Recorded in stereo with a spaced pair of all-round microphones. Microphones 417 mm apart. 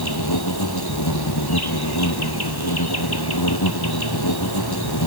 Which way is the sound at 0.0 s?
60° left (ahead or behind).